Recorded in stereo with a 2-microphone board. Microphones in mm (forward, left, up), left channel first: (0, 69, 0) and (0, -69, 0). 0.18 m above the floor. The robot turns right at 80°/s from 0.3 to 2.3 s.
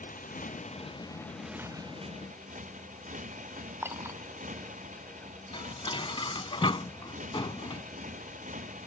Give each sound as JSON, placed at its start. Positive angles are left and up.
{"t": 0.0, "sound": "a motorcycle", "azimuth_deg": 90}
{"t": 3.8, "sound": "a clink", "side_deg": -20}
{"t": 5.5, "sound": "dishes clattering", "side_deg": 40}